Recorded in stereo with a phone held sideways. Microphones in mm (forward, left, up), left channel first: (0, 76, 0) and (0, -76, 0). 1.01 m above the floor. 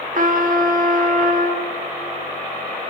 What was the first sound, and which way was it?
A trumpet, 60° right (ahead or behind).